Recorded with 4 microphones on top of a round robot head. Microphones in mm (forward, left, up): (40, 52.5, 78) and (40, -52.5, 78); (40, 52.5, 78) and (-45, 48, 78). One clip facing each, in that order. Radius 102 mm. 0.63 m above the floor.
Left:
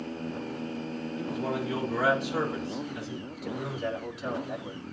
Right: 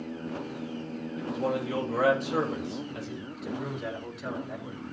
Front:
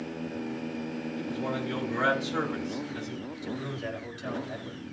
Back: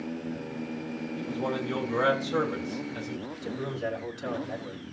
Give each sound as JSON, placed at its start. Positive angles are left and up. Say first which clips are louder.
{"t": 1.2, "sound": "a man speaking", "louder": "right 3 dB, back 2 dB", "azimuth_deg": -125, "distance_m": 3.0}
{"t": 3.3, "sound": "a man speaking", "louder": "right 1 dB, back 1 dB", "azimuth_deg": 175, "distance_m": 3.0}